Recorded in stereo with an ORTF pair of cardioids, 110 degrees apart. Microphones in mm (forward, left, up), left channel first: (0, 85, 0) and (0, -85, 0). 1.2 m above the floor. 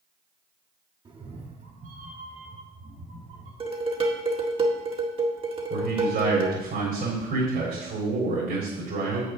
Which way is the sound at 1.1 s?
25° right.